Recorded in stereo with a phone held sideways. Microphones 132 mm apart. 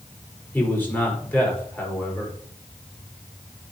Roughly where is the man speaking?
Centre.